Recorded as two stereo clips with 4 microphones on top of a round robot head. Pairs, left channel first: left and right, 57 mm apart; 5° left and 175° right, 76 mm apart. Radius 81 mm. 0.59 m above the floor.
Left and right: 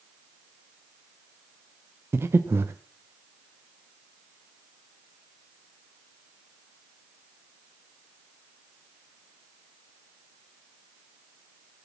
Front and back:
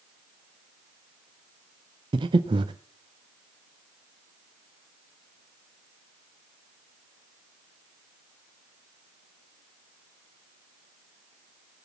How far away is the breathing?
About 0.6 m.